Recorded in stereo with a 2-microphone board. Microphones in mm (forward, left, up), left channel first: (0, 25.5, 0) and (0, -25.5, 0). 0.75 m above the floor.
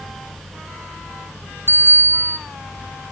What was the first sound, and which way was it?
A bicycle bell, 50° right (ahead or behind).